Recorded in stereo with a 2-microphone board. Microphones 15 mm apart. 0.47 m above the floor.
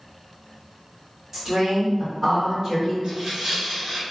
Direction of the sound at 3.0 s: 65° right (ahead or behind).